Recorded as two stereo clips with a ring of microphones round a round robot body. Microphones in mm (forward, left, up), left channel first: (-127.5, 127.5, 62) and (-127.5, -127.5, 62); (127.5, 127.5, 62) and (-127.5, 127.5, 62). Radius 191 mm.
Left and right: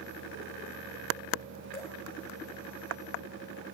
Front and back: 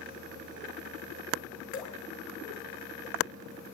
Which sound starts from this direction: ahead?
Dripping, at 1.7 s.